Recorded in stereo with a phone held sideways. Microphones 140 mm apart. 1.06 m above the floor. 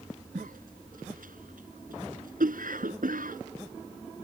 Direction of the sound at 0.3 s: 85° right.